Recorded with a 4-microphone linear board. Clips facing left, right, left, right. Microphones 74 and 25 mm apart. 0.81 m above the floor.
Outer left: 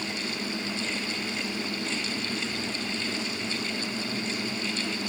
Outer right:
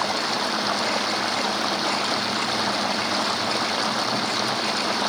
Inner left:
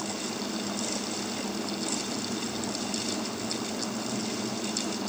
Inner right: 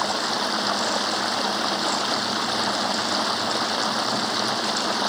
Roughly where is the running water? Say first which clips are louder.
Outer right 9 dB, inner right 10 dB; right.